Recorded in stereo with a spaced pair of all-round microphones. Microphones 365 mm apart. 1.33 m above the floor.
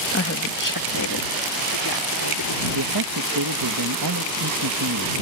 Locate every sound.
0.1 s a woman speaking: 35° left (ahead or behind); by 2.6 s 90° left
2.8 s a man speaking: 75° right (ahead or behind)